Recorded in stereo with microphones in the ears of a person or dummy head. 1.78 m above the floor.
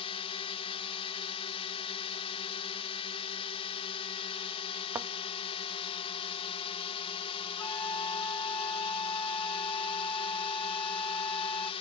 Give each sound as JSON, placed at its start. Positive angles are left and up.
{"t": 0.0, "sound": "a drone", "side_deg": 35}
{"t": 5.0, "sound": "a thud", "side_deg": -10}
{"t": 7.6, "sound": "a flute", "side_deg": 5}